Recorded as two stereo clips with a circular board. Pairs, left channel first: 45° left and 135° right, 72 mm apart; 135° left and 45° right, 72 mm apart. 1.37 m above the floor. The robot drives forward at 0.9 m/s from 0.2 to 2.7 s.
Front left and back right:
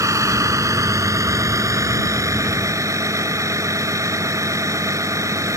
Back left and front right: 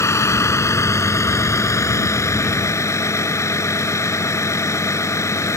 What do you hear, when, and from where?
0.0 s a vehicle: straight behind